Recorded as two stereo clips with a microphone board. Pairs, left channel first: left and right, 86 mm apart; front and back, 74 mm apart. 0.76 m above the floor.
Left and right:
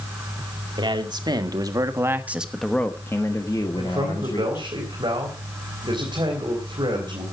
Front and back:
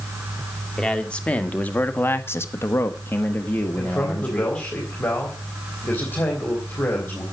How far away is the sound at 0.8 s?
About 2.5 m.